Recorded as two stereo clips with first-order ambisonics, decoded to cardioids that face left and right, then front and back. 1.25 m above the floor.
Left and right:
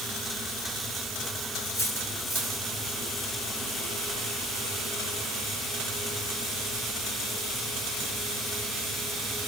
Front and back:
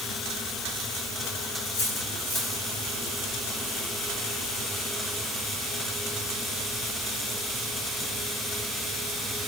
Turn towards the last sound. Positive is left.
turn(degrees=25)